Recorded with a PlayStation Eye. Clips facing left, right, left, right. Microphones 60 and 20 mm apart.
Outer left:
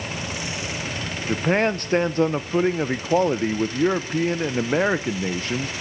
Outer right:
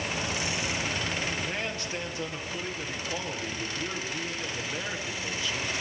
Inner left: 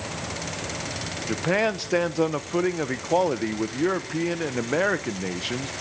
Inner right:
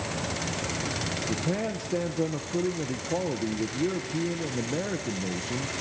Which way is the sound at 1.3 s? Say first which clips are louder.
Outer left 12 dB, inner left 10 dB; 50° left (ahead or behind).